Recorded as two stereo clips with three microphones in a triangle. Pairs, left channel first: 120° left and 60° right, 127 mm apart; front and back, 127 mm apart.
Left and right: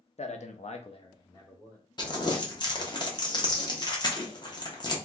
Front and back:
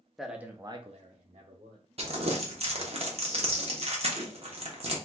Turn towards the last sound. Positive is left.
turn(degrees=165)